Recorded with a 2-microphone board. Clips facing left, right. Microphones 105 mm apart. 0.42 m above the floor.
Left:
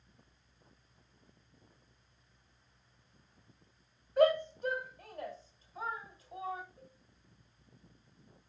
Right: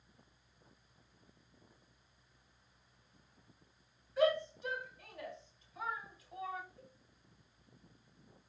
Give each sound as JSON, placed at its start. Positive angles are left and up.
{"t": 4.2, "sound": "a shout", "side_deg": 50, "distance_m": 2.0}
{"t": 6.8, "sound": "a cowbell", "side_deg": 20, "distance_m": 4.0}